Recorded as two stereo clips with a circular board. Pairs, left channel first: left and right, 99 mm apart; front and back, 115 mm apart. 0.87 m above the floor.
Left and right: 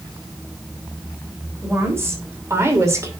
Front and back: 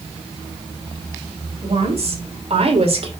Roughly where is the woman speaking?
Behind right.